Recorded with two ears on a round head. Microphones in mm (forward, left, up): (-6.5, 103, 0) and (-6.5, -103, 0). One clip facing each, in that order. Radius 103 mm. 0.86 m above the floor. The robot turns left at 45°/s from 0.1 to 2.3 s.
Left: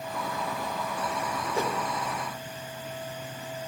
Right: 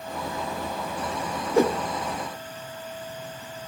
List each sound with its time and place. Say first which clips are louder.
1.5 s a whoosh: right 11 dB; 50° right (ahead or behind), 1.2 m; by 1.8 s 40° right (ahead or behind), 1.2 m